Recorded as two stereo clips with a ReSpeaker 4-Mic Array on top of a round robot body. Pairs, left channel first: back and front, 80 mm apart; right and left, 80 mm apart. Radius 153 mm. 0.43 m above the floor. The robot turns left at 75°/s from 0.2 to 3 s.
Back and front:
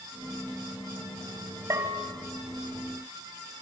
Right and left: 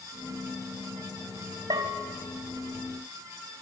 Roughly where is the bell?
Ahead left.